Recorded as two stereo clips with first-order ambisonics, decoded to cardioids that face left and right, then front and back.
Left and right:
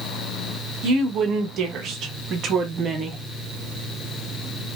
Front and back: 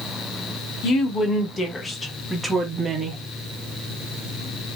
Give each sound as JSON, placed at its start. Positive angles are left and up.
{"t": 0.8, "sound": "a woman speaking", "azimuth_deg": -50, "distance_m": 1.3}